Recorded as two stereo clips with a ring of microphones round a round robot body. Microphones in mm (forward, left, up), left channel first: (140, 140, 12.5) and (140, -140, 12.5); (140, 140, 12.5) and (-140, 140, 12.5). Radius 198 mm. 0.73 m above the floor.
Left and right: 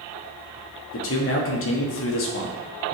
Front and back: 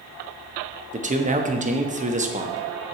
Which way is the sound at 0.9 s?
120° left.